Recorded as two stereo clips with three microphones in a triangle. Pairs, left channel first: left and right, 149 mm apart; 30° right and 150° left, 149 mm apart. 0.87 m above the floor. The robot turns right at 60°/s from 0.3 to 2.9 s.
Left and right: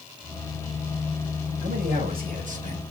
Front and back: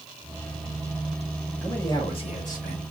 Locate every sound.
1.6 s a man speaking: 115° right, 4 m; by 2.8 s 40° right, 4 m